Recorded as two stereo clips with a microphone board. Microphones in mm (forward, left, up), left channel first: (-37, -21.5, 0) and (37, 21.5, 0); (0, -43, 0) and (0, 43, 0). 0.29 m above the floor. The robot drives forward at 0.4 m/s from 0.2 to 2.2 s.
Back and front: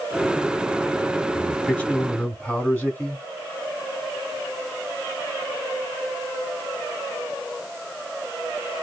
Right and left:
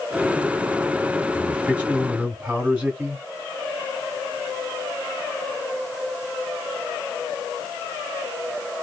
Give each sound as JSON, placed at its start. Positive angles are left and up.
{"t": 1.4, "sound": "a man speaking", "azimuth_deg": 140, "distance_m": 1.4}